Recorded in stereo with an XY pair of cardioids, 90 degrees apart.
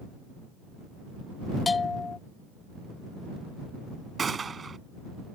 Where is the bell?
40° left.